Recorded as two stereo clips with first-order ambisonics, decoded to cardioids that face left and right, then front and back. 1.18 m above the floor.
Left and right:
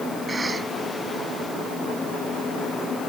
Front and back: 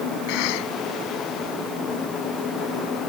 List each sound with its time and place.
0.3 s a cough: 10° right